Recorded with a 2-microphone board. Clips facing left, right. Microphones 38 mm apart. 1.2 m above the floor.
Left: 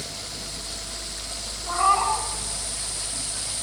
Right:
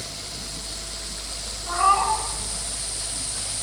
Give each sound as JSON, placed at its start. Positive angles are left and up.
{"t": 1.7, "sound": "a cat meowing", "side_deg": 5, "distance_m": 3.5}